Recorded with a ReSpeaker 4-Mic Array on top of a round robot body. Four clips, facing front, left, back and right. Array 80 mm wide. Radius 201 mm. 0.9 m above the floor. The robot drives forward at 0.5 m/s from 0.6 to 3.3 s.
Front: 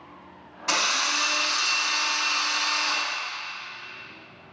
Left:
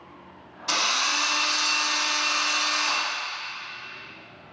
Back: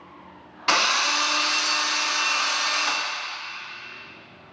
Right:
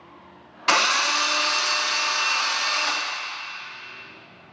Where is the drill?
120° right, 1.3 m; by 3.0 s 155° right, 2 m.